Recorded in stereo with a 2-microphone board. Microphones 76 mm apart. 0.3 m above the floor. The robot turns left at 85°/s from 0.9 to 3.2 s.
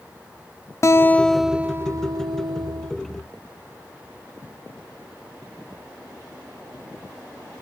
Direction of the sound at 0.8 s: 40° left.